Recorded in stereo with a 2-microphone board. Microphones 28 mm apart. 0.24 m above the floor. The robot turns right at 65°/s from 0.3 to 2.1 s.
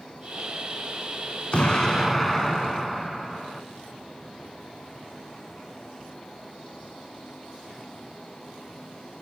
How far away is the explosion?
About 0.6 m.